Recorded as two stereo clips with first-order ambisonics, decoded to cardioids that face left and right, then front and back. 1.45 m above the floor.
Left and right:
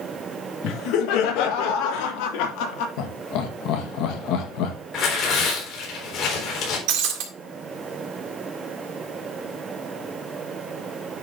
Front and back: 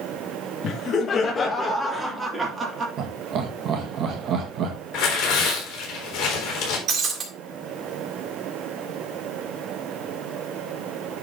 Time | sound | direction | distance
0.6 | laughter | 50° left | 1.5 m
3.0 | laughter | 125° left | 1.6 m
4.9 | tearing paper | 45° left | 4 m
6.9 | breaking glass | 115° right | 2.5 m